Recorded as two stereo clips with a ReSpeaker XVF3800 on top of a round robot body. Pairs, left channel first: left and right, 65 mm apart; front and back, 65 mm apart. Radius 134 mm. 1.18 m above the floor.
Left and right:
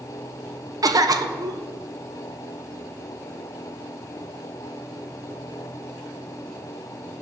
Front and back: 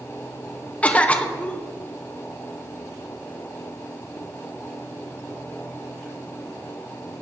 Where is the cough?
70° right, 1.4 m.